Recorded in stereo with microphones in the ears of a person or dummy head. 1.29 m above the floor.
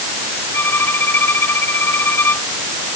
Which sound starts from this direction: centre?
A violin, at 0.5 s.